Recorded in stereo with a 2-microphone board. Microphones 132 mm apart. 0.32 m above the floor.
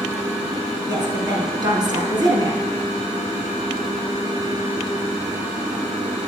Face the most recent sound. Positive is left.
turn(degrees=-35)  # may be behind; listen again after turning